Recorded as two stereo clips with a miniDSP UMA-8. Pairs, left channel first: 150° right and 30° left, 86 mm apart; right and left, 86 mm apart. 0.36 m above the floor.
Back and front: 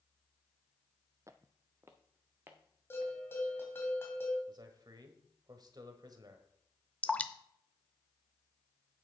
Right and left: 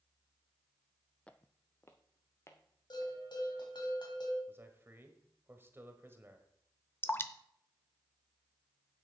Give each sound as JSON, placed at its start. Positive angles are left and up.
{"t": 1.3, "sound": "footsteps", "azimuth_deg": -15, "distance_m": 0.5}
{"t": 2.9, "sound": "a bell", "azimuth_deg": -90, "distance_m": 2.5}
{"t": 4.5, "sound": "a man speaking", "azimuth_deg": 35, "distance_m": 1.3}
{"t": 7.0, "sound": "dripping", "azimuth_deg": -95, "distance_m": 0.7}